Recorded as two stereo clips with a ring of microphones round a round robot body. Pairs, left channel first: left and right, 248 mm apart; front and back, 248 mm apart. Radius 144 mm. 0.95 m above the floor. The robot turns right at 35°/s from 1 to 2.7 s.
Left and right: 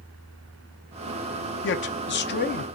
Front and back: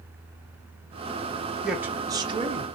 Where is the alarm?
No alarm in this recording.